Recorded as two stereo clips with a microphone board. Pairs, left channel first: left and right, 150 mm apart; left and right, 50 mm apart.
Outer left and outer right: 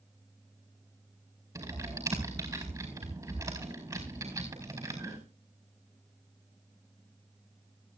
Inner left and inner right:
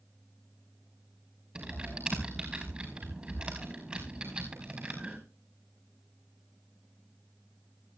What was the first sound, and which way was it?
Typing on a keyboard, 25° right (ahead or behind).